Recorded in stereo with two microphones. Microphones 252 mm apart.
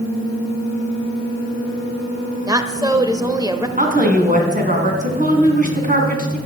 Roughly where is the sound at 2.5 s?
Centre.